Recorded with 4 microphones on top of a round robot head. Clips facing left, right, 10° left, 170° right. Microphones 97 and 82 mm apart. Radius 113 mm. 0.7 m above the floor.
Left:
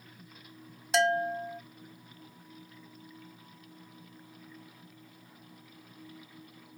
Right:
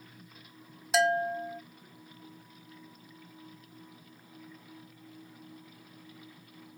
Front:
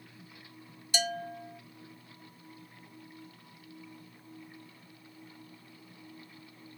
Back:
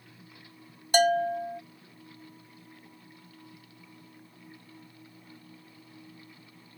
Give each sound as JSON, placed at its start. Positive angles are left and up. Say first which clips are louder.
{"t": 0.9, "sound": "a bell", "louder": "even, back 12 dB", "azimuth_deg": -175}